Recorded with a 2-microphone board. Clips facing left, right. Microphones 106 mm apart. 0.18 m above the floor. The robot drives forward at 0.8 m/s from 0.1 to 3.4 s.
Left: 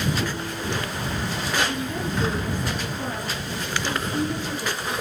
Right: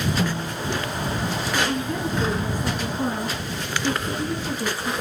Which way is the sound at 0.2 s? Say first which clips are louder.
Right 2 dB; 45° right (ahead or behind).